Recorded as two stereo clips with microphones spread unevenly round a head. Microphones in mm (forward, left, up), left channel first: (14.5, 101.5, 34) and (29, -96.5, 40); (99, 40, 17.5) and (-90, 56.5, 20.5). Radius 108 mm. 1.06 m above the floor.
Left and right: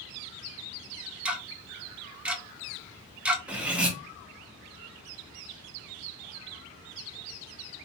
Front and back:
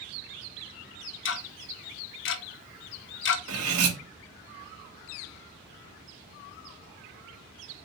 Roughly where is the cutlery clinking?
Behind.